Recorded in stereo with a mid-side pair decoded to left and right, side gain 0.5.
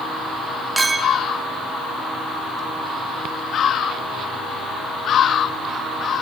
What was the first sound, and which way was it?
A clink, 15° right.